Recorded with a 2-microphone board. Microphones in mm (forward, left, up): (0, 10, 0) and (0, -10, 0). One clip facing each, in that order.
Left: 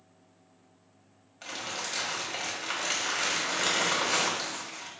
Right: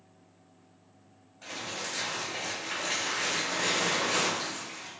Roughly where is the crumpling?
Left.